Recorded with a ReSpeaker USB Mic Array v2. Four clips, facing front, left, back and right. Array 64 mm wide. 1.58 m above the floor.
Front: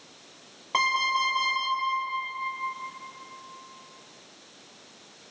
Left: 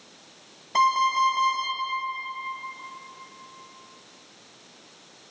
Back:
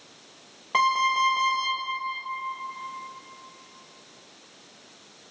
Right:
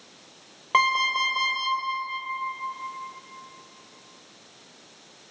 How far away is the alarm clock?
About 4.5 m.